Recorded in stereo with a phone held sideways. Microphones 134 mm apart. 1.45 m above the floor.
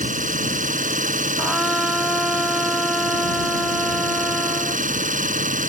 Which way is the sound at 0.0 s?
80° right.